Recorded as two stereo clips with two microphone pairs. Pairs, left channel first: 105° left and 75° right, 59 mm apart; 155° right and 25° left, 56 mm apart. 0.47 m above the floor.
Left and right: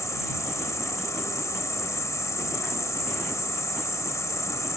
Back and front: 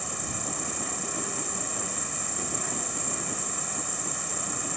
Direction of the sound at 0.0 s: 115° left.